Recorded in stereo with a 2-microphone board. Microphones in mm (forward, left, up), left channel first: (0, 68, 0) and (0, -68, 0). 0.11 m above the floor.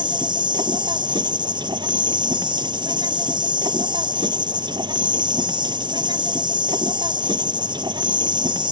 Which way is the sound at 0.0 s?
35° right (ahead or behind).